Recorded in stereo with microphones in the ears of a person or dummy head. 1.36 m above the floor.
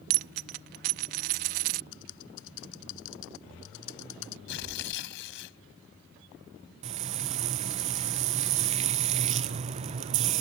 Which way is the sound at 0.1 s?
40° right (ahead or behind).